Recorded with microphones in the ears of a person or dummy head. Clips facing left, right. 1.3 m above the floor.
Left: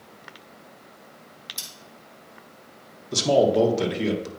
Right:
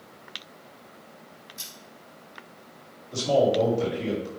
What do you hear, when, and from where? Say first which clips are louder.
1.6 s scissors: left 1 dB; 90° left, 4.5 m
3.1 s a man speaking: left 3 dB; 70° left (ahead or behind), 1.8 m